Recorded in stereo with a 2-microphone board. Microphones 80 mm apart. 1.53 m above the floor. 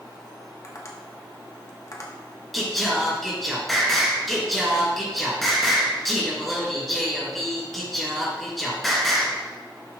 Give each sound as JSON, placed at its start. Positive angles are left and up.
{"t": 0.6, "sound": "tapping", "side_deg": 40, "distance_m": 1.4}
{"t": 2.5, "sound": "singing", "side_deg": 0, "distance_m": 3.0}